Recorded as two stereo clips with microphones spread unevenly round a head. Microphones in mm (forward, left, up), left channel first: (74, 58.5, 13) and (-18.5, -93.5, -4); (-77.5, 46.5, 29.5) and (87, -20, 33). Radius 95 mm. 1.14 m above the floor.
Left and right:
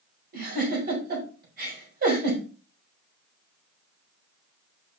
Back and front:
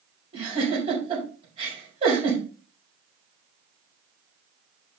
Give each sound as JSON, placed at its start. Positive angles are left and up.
{"t": 0.3, "sound": "a giggle", "azimuth_deg": -85, "distance_m": 5.0}